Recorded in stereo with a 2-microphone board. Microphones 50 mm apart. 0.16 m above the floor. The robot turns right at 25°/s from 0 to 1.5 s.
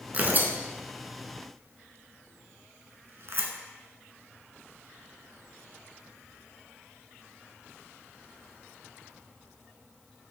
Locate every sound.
0.1 s tearing paper: 35° right (ahead or behind), 0.5 m; by 3.5 s 55° right (ahead or behind), 0.5 m